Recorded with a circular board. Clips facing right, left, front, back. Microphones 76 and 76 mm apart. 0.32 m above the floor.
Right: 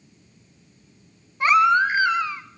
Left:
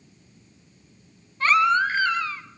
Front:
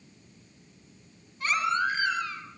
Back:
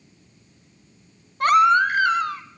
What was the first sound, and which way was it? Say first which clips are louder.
A baby crying: right 3 dB, back 11 dB; 165° right.